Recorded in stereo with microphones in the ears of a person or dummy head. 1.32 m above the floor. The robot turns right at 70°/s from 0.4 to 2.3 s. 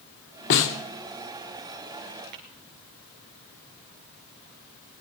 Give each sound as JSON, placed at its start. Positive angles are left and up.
{"t": 0.5, "sound": "a snare drum", "side_deg": 55, "distance_m": 1.6}
{"t": 2.3, "sound": "tapping", "side_deg": -50, "distance_m": 3.0}